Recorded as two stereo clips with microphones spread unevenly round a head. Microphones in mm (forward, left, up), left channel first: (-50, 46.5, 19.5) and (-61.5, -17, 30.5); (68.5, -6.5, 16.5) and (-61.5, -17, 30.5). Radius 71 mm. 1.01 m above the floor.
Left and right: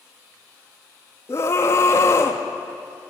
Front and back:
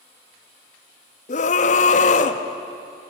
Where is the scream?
25° left, 1.6 m.